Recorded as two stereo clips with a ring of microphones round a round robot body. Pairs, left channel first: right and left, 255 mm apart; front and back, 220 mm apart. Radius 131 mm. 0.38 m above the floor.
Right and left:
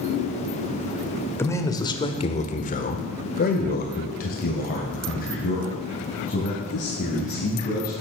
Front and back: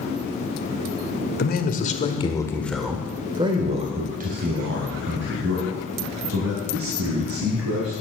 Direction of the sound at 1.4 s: 15° right.